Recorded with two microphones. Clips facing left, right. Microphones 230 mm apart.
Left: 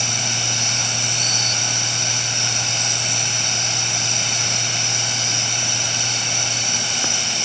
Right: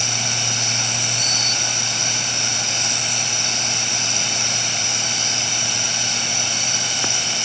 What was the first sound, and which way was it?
Only background noise.